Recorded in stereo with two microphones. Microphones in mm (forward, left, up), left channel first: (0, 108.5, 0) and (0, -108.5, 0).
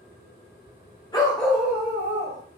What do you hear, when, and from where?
1.1 s a dog barking: 20° left (ahead or behind), 0.9 m; by 2.4 s 35° right (ahead or behind), 1.4 m